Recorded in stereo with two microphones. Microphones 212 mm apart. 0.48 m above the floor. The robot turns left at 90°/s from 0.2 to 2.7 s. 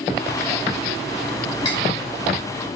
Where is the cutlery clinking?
25° left (ahead or behind), 1.0 m; by 1.8 s 15° left (ahead or behind), 1.0 m.